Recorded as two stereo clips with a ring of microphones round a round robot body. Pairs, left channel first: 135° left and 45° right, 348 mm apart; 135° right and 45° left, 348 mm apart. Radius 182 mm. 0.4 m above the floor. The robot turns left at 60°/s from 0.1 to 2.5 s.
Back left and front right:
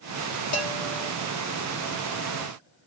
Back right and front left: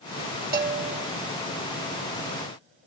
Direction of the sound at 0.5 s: 105° left.